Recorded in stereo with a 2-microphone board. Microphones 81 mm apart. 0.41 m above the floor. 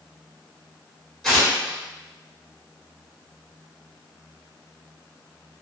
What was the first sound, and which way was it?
Tearing paper, 5° left (ahead or behind).